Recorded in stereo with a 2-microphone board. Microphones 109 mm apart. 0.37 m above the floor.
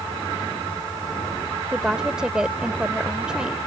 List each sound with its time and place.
1.7 s a woman speaking: 10° right (ahead or behind)